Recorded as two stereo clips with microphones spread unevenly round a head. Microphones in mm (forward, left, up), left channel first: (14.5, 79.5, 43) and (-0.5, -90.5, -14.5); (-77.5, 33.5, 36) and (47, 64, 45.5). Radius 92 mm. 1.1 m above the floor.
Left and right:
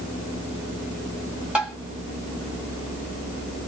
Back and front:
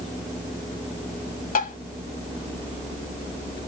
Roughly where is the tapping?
Behind.